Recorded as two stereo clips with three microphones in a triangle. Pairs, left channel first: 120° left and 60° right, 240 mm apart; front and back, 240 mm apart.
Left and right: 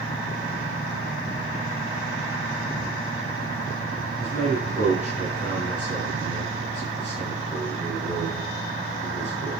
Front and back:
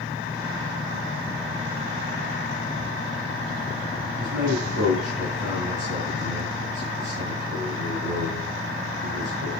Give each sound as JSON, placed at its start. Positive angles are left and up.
{"t": 4.2, "sound": "a man speaking", "azimuth_deg": -175, "distance_m": 5.0}